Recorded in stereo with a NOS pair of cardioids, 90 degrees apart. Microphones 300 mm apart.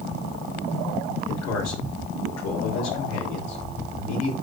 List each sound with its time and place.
1.3 s a man speaking: 65° left, 3 m